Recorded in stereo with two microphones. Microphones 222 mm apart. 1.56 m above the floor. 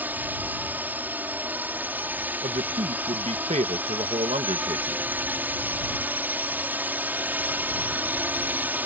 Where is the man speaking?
30° right (ahead or behind).